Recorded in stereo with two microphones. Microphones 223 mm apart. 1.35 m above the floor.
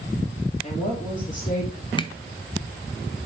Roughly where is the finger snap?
Left.